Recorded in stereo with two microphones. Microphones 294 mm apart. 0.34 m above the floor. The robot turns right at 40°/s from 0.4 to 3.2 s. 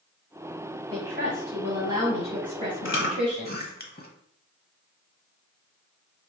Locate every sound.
0.9 s a woman speaking: 55° right, 1.8 m; by 3.6 s 40° left, 1.8 m
2.9 s chewing: 45° left (ahead or behind), 0.8 m; by 4.1 s 30° left (ahead or behind), 0.8 m